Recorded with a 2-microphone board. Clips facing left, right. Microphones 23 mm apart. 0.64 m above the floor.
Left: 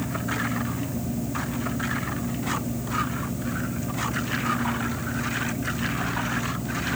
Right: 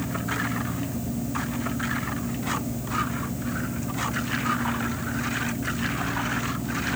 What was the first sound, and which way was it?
Only background noise.